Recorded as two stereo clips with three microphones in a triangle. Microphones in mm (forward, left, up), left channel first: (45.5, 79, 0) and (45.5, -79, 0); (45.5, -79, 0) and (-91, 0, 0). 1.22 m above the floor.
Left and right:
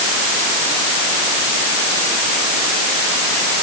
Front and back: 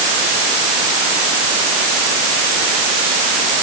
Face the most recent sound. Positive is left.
No sound to turn to.